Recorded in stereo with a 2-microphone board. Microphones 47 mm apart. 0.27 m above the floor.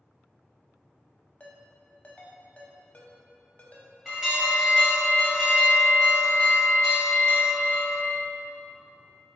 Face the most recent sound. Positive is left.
turn(degrees=-10)  # may be behind; listen again after turning